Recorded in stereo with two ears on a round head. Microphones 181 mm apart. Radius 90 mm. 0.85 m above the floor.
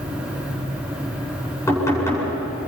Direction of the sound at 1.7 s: 15° left (ahead or behind).